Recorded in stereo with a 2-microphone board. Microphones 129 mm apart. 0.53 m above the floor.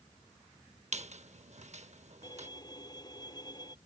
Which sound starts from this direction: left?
A violin, at 2.2 s.